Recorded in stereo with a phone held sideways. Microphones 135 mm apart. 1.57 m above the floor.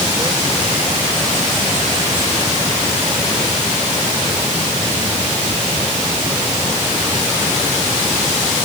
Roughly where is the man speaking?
No man speaking in this recording.